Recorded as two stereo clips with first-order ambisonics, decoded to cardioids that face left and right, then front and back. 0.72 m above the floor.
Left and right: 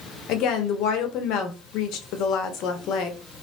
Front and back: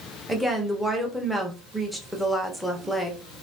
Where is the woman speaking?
90° left, 0.7 m.